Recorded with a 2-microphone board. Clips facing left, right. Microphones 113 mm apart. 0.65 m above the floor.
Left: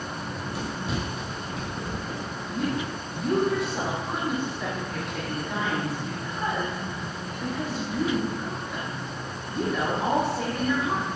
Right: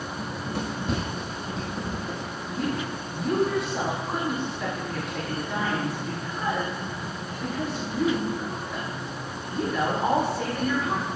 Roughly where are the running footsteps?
Right.